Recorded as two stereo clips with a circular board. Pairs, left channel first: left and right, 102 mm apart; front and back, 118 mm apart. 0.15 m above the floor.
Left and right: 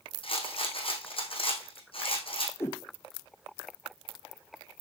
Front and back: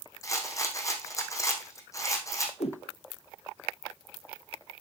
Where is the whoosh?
25° left, 1.1 m.